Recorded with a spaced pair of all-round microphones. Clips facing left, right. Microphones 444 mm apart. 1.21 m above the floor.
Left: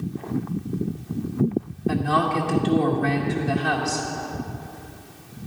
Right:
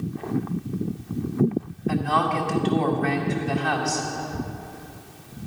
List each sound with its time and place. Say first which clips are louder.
1.9 s a woman speaking: left 2 dB; 55° left (ahead or behind), 2 m